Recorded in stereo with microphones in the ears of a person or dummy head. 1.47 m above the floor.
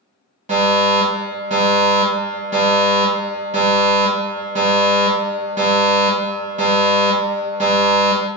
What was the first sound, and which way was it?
A fire alarm, 35° right (ahead or behind).